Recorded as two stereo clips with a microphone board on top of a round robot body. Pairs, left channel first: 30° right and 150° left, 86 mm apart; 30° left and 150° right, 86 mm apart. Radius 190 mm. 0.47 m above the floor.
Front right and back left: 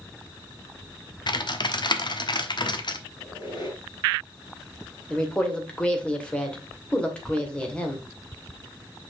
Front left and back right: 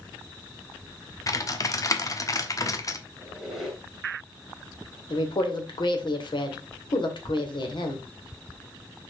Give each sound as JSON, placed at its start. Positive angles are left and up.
{"t": 1.3, "sound": "typing on a keyboard", "azimuth_deg": -15, "distance_m": 1.3}
{"t": 3.2, "sound": "a squeak", "azimuth_deg": -65, "distance_m": 2.5}
{"t": 5.1, "sound": "a woman speaking", "azimuth_deg": 45, "distance_m": 2.5}